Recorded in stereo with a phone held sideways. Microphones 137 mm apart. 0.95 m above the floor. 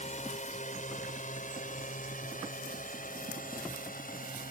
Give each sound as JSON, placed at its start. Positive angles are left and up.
{"t": 0.0, "sound": "a drone", "side_deg": 55}